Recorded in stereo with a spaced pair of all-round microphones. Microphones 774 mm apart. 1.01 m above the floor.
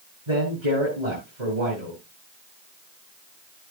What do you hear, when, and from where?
0.3 s a man speaking: 65° right (ahead or behind), 7 m